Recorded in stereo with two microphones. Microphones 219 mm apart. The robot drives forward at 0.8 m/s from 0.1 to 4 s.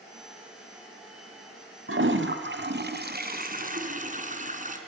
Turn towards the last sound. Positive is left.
turn(degrees=-35)  # may be behind; listen again after turning